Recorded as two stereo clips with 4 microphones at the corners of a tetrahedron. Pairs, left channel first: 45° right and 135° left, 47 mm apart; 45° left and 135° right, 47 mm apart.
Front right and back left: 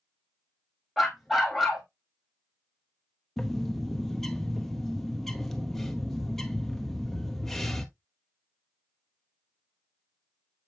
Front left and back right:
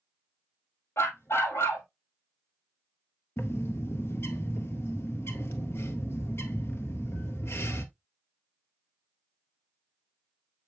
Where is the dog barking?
50° left, 1.9 m.